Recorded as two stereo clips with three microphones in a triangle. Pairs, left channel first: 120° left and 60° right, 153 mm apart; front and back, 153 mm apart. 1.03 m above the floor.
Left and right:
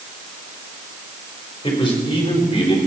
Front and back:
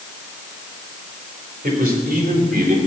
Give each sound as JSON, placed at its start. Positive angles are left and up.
{"t": 1.6, "sound": "a man speaking", "azimuth_deg": 175, "distance_m": 4.0}